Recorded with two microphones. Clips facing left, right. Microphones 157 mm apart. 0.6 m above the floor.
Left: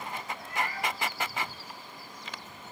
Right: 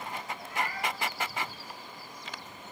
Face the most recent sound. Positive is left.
turn(degrees=80)